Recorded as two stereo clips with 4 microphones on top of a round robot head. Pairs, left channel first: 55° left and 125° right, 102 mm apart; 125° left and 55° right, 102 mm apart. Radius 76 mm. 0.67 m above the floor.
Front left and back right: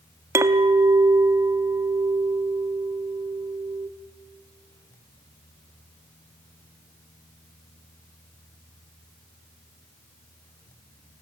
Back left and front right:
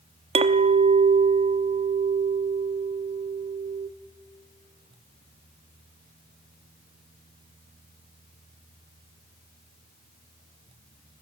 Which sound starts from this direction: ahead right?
A clink, at 0.3 s.